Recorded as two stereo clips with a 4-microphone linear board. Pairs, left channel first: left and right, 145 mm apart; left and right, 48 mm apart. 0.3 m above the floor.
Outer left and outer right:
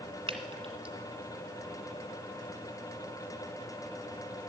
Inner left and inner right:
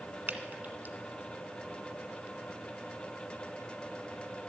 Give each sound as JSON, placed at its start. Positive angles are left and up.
{"t": 0.3, "sound": "dripping", "side_deg": -35, "distance_m": 1.3}